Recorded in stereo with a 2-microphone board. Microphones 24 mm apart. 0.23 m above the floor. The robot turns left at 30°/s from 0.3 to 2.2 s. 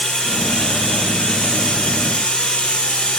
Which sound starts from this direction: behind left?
Running water, at 0.0 s.